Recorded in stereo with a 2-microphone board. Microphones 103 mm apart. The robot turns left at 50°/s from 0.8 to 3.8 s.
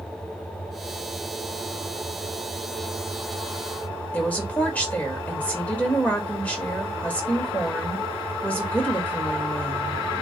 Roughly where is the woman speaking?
Centre.